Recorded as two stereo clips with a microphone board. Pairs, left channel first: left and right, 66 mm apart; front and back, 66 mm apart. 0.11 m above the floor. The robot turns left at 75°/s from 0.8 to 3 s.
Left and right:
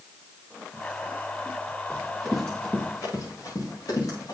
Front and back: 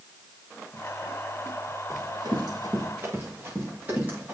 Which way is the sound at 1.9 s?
140° right.